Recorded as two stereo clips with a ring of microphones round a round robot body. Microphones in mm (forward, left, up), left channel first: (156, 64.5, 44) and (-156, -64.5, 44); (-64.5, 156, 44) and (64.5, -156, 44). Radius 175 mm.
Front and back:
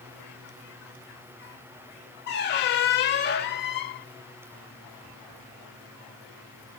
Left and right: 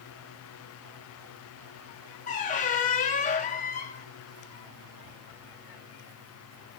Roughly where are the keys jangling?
No keys jangling in this recording.